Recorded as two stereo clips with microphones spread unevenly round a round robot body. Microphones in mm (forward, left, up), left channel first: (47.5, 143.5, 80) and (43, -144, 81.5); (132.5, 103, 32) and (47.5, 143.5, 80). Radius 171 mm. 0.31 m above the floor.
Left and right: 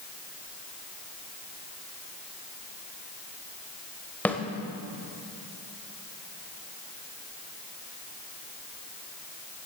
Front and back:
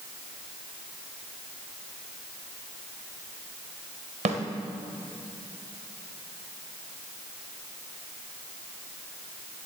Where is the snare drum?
170° left, 1.3 m.